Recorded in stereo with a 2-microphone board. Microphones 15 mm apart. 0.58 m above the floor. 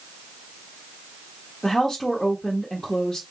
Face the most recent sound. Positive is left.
turn(degrees=35)  # may be behind; listen again after turning